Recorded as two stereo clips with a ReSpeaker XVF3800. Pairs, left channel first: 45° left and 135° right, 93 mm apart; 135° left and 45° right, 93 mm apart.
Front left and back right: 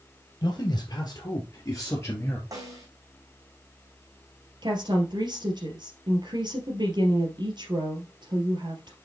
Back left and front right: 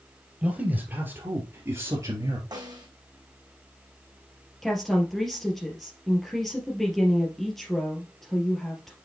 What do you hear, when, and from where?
0.4 s a man speaking: 30° left, 2 m; by 2.4 s 10° right, 2 m
2.5 s a snare drum: 85° right, 3 m
4.6 s a woman speaking: 135° right, 2.5 m